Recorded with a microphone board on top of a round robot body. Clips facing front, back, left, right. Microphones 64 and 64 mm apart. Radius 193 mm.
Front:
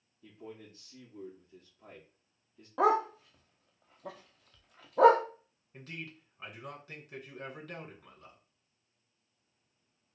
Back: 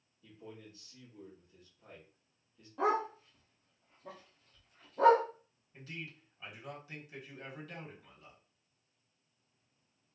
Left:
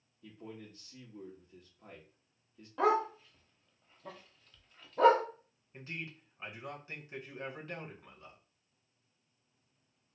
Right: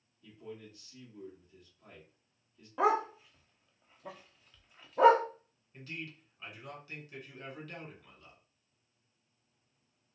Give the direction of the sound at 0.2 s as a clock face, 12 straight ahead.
11 o'clock.